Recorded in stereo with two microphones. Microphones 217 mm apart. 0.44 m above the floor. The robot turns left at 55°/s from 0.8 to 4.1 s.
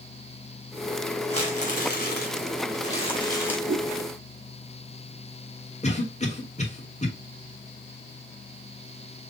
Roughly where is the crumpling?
Behind left.